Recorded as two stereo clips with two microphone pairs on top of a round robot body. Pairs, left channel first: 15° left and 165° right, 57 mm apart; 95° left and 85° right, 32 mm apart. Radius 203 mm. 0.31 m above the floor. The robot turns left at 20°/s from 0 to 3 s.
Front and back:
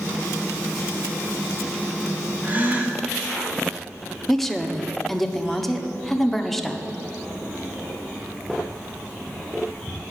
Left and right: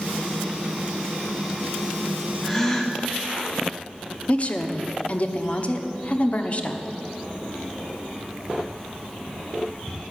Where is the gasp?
165° left, 1.5 m; by 3.0 s 155° left, 1.5 m.